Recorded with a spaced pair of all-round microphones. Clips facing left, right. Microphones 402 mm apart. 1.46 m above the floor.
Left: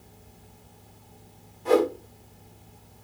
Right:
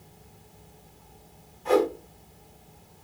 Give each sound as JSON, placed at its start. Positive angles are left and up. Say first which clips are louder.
{"t": 1.6, "sound": "a whoosh", "louder": "left 1 dB", "side_deg": 50, "distance_m": 1.0}